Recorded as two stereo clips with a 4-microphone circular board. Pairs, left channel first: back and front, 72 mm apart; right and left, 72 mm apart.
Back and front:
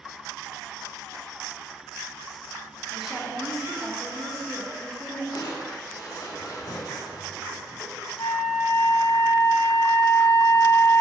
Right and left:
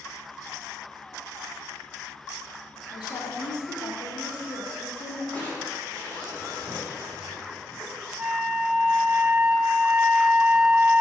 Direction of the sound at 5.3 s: 155° right.